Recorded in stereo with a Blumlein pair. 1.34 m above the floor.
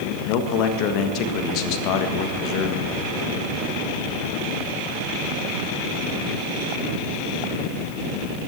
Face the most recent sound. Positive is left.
turn(degrees=40)